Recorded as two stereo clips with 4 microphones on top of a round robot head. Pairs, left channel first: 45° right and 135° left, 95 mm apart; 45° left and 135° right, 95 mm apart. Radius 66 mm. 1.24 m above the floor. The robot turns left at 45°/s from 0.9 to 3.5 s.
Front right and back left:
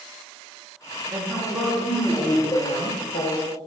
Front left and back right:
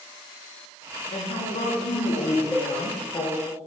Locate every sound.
1.1 s a woman speaking: 75° left, 0.7 m; by 3.4 s 30° right, 0.7 m
2.5 s a cowbell: 25° right, 0.8 m; by 2.7 s 35° right, 0.8 m